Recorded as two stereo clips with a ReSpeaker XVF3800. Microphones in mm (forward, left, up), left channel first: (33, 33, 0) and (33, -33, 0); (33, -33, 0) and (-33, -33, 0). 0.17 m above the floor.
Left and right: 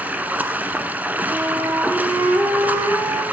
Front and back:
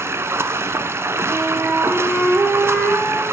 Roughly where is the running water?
Behind right.